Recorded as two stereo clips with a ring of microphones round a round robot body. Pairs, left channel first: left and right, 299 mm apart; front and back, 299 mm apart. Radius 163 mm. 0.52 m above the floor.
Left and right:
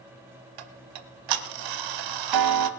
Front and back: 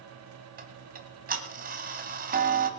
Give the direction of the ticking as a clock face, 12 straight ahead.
4 o'clock.